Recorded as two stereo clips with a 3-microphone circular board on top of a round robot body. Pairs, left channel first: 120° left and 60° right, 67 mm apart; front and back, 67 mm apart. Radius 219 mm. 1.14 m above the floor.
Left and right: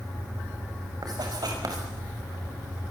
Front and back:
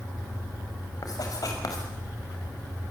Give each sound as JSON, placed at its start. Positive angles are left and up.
{"t": 1.0, "sound": "writing", "azimuth_deg": -35, "distance_m": 5.5}